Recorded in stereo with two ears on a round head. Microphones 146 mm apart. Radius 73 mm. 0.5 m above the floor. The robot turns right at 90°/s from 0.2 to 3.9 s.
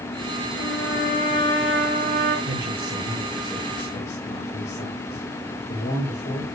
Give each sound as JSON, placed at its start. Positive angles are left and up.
{"t": 0.6, "sound": "a trumpet", "azimuth_deg": 75, "distance_m": 5.5}
{"t": 2.5, "sound": "a man speaking", "azimuth_deg": -90, "distance_m": 7.0}